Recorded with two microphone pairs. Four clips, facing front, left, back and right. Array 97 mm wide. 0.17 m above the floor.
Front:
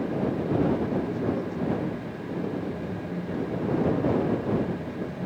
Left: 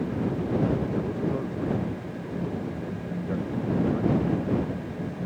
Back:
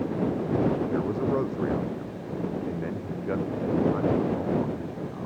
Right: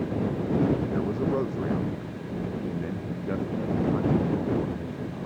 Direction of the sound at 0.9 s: 160° right.